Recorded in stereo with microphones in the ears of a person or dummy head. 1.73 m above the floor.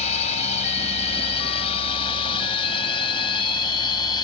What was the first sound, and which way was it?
A drone, 35° left (ahead or behind).